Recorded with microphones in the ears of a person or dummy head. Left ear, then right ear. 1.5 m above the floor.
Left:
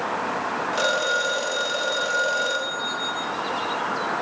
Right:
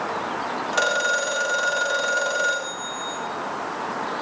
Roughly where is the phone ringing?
Right.